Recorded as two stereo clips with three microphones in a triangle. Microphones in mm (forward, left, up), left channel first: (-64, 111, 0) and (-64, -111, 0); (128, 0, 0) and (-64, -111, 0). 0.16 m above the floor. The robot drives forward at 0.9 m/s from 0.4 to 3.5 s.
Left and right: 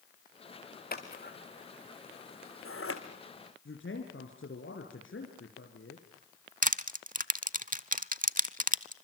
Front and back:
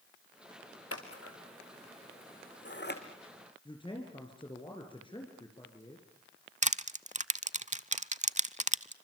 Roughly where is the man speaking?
Left.